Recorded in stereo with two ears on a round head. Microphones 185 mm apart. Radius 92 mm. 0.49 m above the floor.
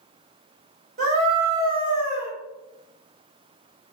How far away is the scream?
About 1.5 m.